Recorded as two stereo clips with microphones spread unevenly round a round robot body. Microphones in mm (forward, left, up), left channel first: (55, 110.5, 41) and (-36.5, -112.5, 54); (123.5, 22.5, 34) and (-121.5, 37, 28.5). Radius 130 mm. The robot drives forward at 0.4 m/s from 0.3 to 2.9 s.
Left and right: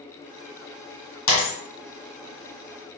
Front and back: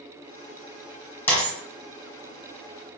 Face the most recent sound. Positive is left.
turn(degrees=105)